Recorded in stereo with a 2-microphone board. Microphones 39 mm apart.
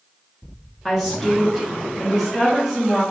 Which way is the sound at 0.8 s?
Centre (ahead or behind).